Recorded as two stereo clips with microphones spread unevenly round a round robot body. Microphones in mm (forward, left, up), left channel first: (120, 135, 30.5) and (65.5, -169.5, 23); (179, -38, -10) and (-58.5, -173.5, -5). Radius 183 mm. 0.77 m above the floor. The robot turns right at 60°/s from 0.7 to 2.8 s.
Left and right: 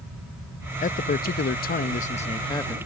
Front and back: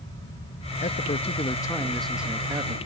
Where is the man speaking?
40° left; by 2.8 s 160° left.